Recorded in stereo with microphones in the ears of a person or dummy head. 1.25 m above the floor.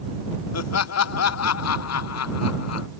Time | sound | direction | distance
0.5 | laughter | 80° left | ?